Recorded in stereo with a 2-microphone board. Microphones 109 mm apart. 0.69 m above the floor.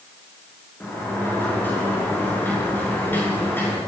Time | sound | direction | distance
0.8 | a sliding door | 20° left (ahead or behind) | 7 m